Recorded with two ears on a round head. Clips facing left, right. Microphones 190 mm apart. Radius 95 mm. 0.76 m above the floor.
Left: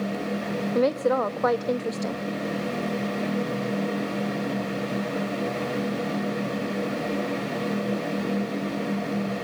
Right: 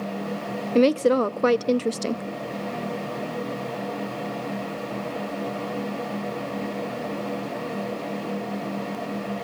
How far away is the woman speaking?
About 0.6 m.